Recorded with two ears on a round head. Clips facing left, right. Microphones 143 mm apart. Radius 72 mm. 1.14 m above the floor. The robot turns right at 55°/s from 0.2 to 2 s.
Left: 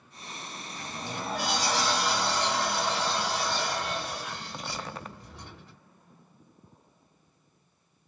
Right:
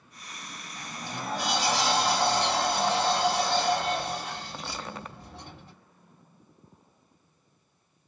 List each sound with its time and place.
0.8 s a sliding door: 140° left, 1.7 m; by 5.7 s 150° right, 1.7 m